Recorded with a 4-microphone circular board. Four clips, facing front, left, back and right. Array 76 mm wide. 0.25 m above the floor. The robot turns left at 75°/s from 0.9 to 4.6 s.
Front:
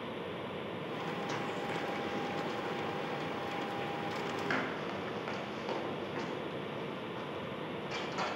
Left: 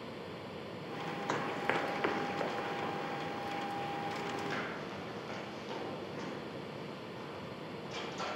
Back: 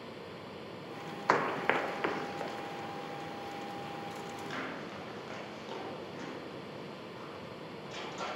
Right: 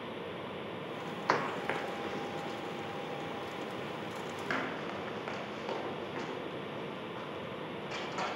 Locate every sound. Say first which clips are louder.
1.3 s running footsteps: right 3 dB, back 7 dB; 150° right, 0.6 m; by 8.3 s 55° right, 8.5 m